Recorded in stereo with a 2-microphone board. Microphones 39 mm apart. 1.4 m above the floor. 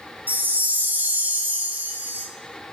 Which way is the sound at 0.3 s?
50° right (ahead or behind).